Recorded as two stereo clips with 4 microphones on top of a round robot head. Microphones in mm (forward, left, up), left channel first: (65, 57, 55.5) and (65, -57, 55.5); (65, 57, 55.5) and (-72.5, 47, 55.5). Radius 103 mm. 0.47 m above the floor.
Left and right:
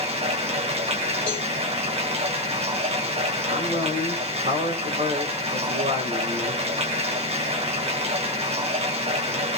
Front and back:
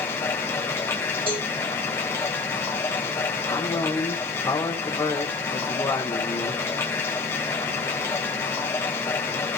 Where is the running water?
70° right, 2 m.